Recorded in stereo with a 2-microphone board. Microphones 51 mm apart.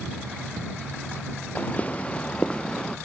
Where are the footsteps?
35° left (ahead or behind); by 3.0 s 20° left (ahead or behind).